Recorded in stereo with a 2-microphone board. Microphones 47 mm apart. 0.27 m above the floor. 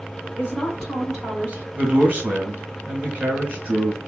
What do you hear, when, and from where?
0.4 s a woman speaking: 30° left (ahead or behind), 1.5 m; by 1.7 s 30° right (ahead or behind), 1.6 m
1.8 s a man speaking: 40° right (ahead or behind), 1.4 m